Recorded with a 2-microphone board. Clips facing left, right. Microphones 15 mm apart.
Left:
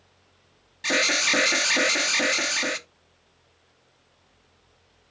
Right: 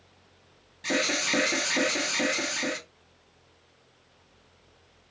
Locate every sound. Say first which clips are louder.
0.8 s an alarm: left 5 dB; 35° left (ahead or behind), 0.8 m